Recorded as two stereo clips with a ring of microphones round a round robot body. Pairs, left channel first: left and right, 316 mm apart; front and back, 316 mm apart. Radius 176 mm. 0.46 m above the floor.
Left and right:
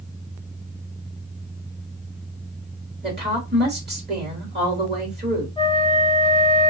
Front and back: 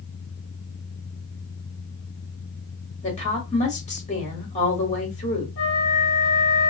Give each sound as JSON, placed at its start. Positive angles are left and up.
{"t": 3.0, "sound": "a woman speaking", "azimuth_deg": -55, "distance_m": 1.5}
{"t": 5.6, "sound": "a flute", "azimuth_deg": 20, "distance_m": 0.9}